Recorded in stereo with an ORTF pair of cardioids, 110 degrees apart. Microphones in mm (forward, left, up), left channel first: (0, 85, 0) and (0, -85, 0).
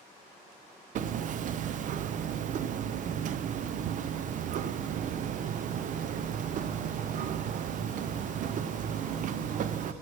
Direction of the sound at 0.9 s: 50° right.